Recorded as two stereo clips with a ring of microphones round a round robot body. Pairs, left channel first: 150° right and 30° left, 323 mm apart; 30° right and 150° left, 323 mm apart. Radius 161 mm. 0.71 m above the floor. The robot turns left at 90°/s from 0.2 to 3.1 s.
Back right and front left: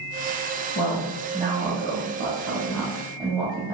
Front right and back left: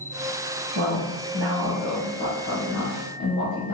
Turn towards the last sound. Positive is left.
turn(degrees=-50)